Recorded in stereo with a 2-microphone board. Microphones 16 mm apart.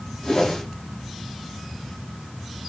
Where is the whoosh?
55° left (ahead or behind), 1.4 m.